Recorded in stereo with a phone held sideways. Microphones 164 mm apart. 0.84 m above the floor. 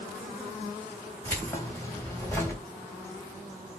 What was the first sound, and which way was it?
Keys jangling, 15° left (ahead or behind).